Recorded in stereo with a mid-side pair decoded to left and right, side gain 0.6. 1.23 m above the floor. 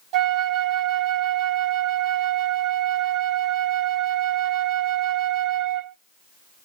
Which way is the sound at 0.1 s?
70° right.